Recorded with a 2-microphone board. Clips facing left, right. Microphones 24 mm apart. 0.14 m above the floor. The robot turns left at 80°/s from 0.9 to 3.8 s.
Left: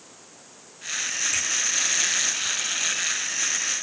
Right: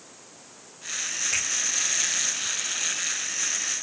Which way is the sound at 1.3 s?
80° right.